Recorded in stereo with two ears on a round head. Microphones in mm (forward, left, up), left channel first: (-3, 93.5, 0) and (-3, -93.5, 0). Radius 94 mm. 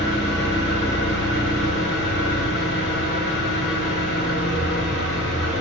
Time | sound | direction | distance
0.0 | an engine running | 55° left (ahead or behind) | 0.9 m